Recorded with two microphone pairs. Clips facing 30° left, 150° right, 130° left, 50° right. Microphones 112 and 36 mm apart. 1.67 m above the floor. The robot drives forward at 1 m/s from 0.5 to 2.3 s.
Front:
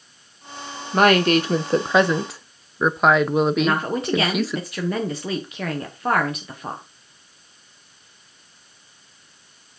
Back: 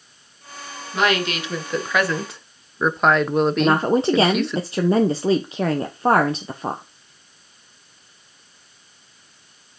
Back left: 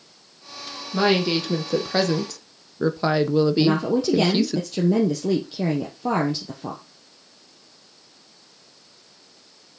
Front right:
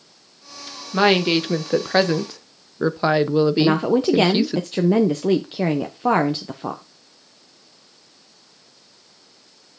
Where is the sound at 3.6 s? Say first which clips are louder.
Back 4 dB, front right 2 dB; 90° right, 0.9 m.